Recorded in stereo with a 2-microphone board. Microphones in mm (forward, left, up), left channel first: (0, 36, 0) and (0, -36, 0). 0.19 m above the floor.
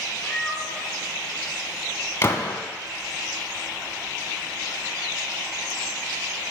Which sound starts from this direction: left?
A gunshot, at 2.2 s.